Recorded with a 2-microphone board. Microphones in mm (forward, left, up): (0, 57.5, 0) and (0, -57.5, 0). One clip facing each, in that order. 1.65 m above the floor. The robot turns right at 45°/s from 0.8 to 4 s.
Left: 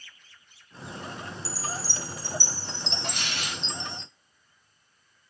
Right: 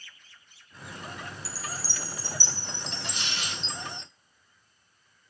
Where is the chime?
85° left, 0.7 m; by 4.0 s 160° right, 0.7 m.